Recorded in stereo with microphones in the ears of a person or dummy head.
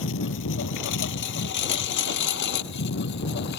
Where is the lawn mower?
70° left (ahead or behind); by 3.6 s 55° left (ahead or behind).